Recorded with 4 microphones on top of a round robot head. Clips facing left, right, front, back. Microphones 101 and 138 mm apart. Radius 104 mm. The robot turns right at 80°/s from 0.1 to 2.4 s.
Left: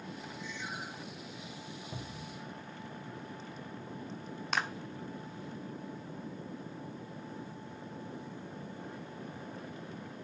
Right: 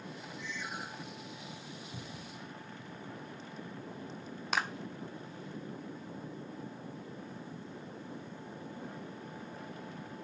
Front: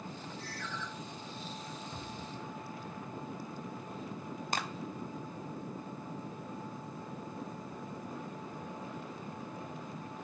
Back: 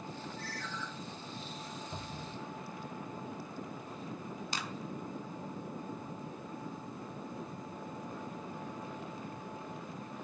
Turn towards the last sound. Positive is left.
turn(degrees=0)